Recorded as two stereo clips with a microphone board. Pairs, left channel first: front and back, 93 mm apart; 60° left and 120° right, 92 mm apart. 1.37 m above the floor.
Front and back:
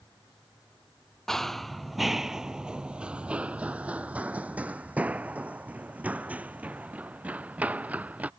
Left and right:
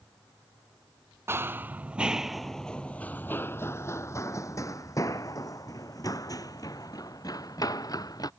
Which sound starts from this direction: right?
Running footsteps, at 1.3 s.